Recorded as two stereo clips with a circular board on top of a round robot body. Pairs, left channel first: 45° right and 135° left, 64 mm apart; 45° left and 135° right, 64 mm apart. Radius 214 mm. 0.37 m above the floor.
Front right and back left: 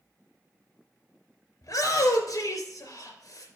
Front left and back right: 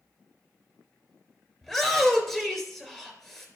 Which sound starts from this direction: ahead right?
A shout, at 1.6 s.